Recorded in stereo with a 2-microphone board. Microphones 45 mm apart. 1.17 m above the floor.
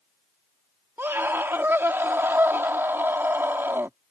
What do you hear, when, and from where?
1.0 s a scream: 60° right (ahead or behind)